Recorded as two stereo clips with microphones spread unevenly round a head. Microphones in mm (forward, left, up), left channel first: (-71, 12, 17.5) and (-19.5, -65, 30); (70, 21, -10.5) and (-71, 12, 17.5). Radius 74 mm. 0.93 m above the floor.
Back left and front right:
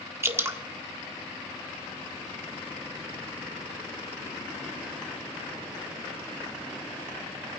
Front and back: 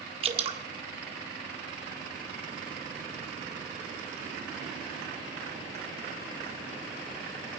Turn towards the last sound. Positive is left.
turn(degrees=-120)